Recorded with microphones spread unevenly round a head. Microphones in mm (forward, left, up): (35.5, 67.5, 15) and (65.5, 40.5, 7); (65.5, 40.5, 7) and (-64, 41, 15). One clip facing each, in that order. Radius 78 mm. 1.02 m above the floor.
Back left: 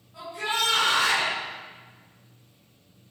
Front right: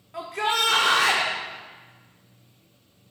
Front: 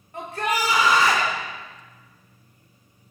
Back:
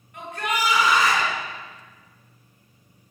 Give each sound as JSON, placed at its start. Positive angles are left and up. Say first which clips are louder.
{"t": 0.1, "sound": "a shout", "louder": "front right 4 dB, front 2 dB", "azimuth_deg": -65, "distance_m": 2.5}